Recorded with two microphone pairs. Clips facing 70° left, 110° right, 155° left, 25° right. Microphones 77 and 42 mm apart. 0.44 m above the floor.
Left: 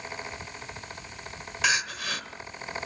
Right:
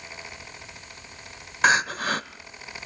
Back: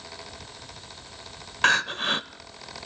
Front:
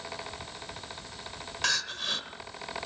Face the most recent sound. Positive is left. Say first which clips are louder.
# right 7 dB, back 9 dB
turn(degrees=-150)